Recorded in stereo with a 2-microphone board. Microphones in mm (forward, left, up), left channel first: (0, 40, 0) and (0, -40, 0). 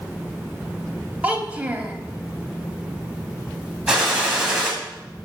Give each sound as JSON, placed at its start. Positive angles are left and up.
{"t": 1.2, "sound": "a child speaking", "side_deg": -20, "distance_m": 1.1}
{"t": 3.9, "sound": "a gunshot", "side_deg": -10, "distance_m": 2.0}